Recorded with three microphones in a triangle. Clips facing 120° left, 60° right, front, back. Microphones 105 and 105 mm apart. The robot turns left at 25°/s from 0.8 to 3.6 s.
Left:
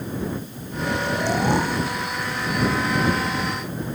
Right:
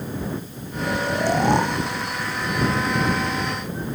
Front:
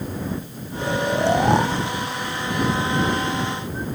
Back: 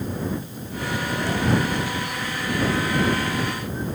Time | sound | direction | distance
0.8 | snoring | 25° left | ?